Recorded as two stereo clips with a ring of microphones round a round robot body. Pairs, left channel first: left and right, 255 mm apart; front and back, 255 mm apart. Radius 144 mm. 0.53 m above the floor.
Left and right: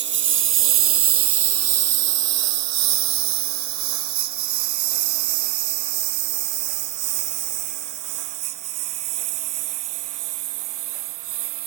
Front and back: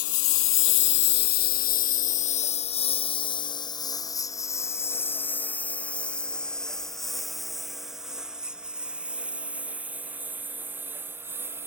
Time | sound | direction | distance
0.0 | a lawn mower | 45° right | ?